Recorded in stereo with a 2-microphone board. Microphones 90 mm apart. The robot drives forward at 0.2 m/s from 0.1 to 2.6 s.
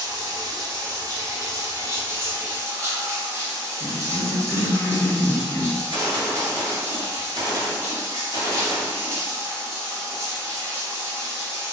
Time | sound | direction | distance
0.0 | running water | 50° right (ahead or behind) | 0.8 m
3.8 | a cough | 20° left (ahead or behind) | 0.9 m
5.8 | a gunshot | 60° right (ahead or behind) | 1.6 m